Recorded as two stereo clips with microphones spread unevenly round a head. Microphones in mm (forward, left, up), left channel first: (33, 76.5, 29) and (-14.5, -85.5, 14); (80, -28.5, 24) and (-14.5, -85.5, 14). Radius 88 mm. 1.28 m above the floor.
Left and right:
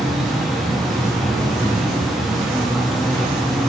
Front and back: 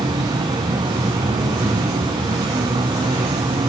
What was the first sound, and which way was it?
An insect, 165° left.